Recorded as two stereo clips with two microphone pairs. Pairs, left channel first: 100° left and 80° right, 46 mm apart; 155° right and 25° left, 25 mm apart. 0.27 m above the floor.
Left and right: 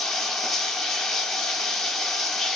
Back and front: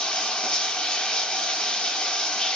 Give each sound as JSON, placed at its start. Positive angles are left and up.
{"t": 0.0, "sound": "running water", "azimuth_deg": 175, "distance_m": 0.8}